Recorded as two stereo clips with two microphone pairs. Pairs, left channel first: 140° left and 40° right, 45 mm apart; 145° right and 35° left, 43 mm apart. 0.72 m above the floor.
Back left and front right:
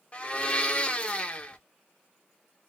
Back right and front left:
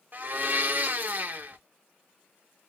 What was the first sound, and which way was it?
A blender, 75° left.